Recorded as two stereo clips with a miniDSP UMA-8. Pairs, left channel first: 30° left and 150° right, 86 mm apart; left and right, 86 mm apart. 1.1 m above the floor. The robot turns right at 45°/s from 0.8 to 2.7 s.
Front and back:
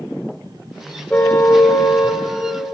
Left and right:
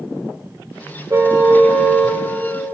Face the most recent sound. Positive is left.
turn(degrees=30)